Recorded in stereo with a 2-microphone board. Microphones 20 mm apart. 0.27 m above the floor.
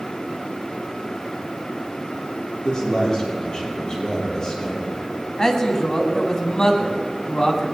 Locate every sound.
2.6 s a man speaking: 45° left (ahead or behind), 7 m
5.4 s a man speaking: 35° left (ahead or behind), 2.5 m